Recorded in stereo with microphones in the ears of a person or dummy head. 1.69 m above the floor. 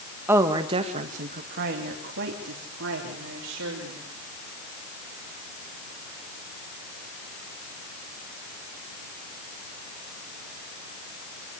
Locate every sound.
0.3 s a woman speaking: 10° right (ahead or behind), 1.7 m; by 4.1 s 85° right, 5 m